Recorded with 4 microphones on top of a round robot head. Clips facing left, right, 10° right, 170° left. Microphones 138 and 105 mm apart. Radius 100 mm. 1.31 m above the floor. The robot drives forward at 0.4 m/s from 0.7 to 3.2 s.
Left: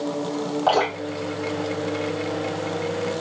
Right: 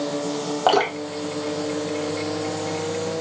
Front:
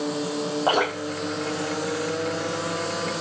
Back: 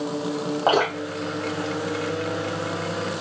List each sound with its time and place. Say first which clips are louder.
0.7 s dripping: right 2 dB, back 3 dB; 115° right, 0.6 m; by 2.8 s 155° right, 1.2 m